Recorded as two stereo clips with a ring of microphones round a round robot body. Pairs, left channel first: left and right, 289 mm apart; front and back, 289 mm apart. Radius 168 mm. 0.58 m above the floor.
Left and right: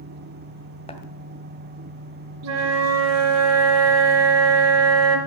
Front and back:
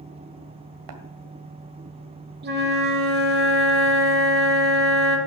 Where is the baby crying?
I don't hear a baby crying.